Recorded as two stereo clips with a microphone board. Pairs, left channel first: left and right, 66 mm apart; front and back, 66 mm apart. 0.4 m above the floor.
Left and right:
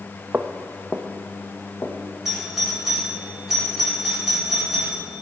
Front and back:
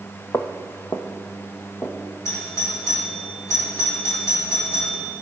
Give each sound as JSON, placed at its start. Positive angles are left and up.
{"t": 0.3, "sound": "footsteps", "azimuth_deg": -30, "distance_m": 0.6}
{"t": 2.2, "sound": "a doorbell", "azimuth_deg": -10, "distance_m": 2.5}